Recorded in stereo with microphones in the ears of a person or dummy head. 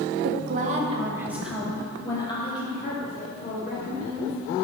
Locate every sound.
0.2 s a woman speaking: 55° right (ahead or behind), 1.1 m; by 4.3 s 55° left (ahead or behind), 2.5 m